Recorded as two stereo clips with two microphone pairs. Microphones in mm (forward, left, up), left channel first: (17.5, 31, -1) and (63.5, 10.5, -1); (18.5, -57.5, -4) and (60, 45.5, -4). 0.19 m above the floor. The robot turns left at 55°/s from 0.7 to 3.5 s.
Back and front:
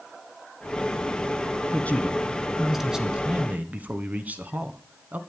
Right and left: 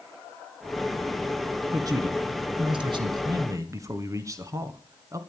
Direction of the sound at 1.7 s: 120° left.